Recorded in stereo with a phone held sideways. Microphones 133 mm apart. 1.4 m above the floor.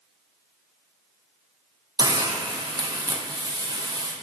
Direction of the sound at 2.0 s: 30° right (ahead or behind).